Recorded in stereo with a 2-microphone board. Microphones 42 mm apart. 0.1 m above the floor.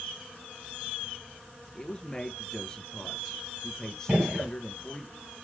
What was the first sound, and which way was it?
A man speaking, 15° left (ahead or behind).